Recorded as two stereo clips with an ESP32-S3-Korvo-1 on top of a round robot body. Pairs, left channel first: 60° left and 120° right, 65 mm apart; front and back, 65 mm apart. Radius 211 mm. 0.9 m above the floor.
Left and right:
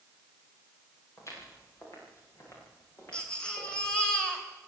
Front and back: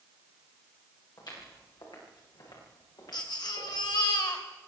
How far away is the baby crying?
About 2.5 m.